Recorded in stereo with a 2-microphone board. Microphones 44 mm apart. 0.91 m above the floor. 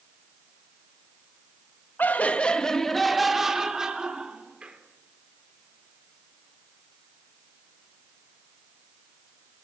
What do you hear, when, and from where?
2.0 s laughter: 45° left (ahead or behind), 1.4 m; by 4.8 s 25° right (ahead or behind), 3.5 m